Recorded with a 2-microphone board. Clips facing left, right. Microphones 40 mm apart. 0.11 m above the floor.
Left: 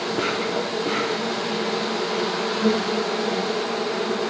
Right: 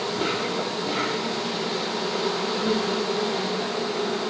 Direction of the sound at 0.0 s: 85° left.